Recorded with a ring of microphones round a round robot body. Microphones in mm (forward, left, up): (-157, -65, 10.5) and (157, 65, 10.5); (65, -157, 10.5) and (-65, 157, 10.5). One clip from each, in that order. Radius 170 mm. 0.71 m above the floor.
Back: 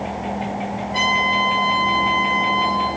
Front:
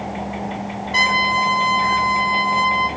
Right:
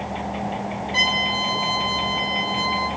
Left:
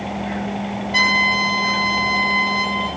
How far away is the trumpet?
About 4.5 m.